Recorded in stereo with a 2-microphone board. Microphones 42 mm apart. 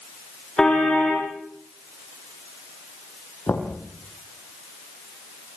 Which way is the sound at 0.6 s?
15° left (ahead or behind).